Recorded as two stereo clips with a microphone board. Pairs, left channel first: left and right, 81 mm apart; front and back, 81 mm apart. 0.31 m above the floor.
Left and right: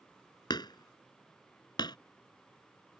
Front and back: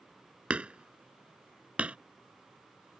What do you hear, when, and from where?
0.5 s hammering: 105° left